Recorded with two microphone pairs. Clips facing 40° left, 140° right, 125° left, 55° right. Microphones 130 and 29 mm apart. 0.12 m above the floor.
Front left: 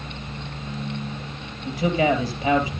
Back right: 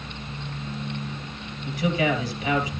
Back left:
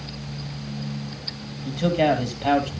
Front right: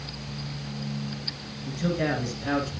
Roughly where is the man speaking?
Left.